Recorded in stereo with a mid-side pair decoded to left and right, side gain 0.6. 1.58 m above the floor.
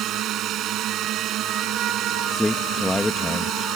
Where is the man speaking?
10° left.